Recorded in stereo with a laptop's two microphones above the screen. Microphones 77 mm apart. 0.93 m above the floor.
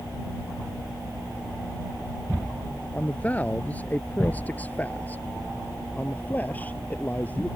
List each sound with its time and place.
2.9 s a man speaking: 20° left (ahead or behind)